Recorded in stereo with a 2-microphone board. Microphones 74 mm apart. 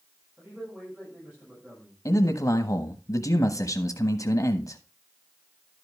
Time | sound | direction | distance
0.4 | a man speaking | 25° right (ahead or behind) | 6 m
2.0 | a man speaking | 55° left (ahead or behind) | 1.0 m